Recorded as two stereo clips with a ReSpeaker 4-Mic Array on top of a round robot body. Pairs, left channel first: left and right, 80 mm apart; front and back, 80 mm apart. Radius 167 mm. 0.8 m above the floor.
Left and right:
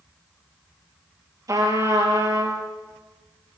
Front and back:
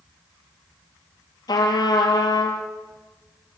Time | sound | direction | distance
1.5 | a trumpet | 45° right | 3.5 m